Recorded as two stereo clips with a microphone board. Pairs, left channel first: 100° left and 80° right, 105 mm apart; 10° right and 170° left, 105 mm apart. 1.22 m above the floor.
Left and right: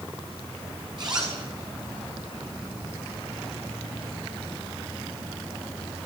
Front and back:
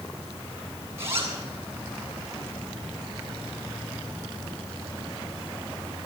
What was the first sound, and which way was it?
A zipper, 125° right.